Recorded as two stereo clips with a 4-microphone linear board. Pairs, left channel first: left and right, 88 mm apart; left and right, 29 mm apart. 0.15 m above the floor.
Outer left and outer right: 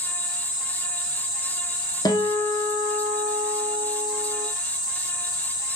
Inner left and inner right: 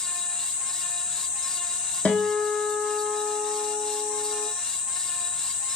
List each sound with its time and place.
2.0 s a guitar: 55° left (ahead or behind), 0.5 m